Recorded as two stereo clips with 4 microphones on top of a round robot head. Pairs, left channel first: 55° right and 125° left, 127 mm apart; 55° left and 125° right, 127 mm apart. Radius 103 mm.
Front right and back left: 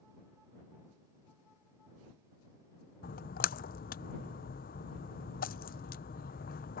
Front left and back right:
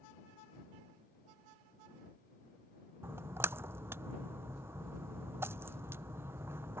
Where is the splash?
50° right.